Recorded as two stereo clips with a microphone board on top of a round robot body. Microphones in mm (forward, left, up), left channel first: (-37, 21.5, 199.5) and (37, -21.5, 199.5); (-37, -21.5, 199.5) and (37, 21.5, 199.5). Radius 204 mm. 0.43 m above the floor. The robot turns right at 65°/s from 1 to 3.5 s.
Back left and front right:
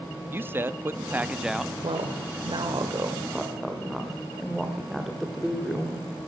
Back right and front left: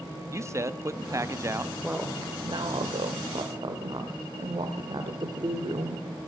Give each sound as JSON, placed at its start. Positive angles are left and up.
{"t": 0.3, "sound": "a man speaking", "azimuth_deg": 10, "distance_m": 1.1}
{"t": 1.8, "sound": "a woman speaking", "azimuth_deg": -50, "distance_m": 2.0}